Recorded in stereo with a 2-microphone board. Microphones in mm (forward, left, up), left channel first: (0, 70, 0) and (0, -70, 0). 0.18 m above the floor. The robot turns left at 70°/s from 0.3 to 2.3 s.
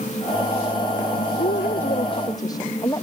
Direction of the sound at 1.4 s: 90° left.